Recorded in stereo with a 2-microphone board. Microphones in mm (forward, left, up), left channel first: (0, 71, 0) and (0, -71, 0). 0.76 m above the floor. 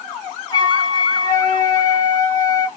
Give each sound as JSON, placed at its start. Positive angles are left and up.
{"t": 0.5, "sound": "a flute", "side_deg": 30, "distance_m": 0.8}